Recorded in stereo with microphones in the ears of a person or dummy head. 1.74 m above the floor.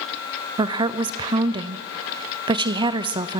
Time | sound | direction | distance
0.6 | a woman speaking | 25° right (ahead or behind) | 0.8 m